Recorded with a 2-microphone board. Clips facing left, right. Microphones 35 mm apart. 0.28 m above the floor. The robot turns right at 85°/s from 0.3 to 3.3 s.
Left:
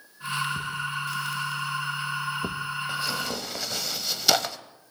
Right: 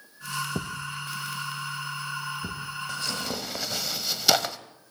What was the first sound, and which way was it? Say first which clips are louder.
A thud: left 3 dB; 70° right (ahead or behind).